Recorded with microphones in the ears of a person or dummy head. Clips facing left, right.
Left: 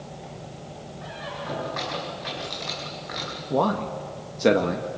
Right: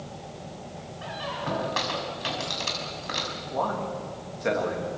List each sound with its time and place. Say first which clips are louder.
1.0 s a squeak: right 2 dB; 50° right (ahead or behind), 5.5 m
3.5 s a man speaking: left 6 dB; 55° left (ahead or behind), 1.8 m